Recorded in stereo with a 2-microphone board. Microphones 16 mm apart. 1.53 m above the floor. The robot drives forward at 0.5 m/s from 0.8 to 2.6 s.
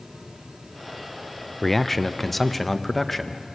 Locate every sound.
1.6 s a man speaking: 15° left (ahead or behind), 0.7 m; by 3.4 s 10° left (ahead or behind), 1.2 m